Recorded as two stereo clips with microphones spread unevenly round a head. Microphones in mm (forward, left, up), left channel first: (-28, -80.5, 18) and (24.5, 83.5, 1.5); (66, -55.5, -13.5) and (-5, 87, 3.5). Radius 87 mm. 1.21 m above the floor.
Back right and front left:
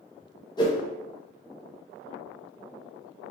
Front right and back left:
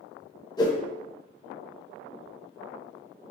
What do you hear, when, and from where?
0.6 s a whoosh: 55° right, 0.6 m